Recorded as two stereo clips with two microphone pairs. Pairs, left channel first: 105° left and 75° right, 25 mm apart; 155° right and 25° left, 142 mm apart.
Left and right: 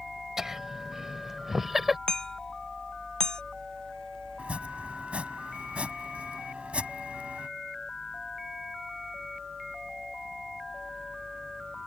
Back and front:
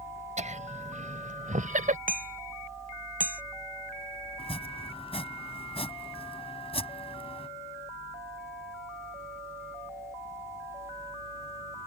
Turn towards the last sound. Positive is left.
turn(degrees=-110)